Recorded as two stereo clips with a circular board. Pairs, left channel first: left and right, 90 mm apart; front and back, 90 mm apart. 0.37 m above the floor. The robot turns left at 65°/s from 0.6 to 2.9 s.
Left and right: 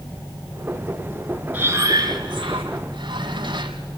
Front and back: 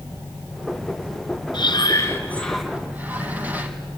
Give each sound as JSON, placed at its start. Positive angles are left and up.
{"t": 1.5, "sound": "breathing", "azimuth_deg": -20, "distance_m": 2.5}